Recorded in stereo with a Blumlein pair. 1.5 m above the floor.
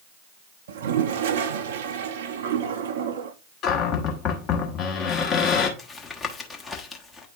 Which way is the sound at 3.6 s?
35° left.